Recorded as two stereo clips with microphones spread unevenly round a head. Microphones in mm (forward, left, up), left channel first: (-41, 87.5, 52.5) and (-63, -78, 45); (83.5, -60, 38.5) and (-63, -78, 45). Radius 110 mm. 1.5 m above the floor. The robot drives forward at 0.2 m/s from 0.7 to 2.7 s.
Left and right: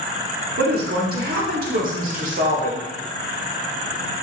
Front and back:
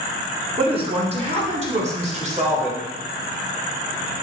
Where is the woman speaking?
125° right, 1.2 m; by 2.9 s 140° right, 1.4 m.